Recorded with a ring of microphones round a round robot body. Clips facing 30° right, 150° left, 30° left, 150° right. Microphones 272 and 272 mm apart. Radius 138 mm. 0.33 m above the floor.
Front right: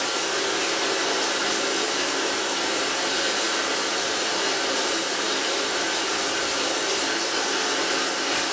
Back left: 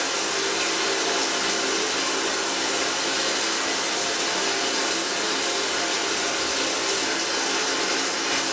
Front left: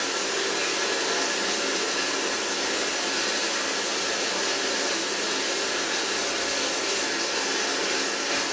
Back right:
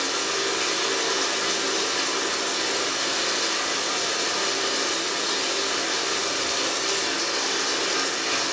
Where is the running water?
150° left, 1.3 m.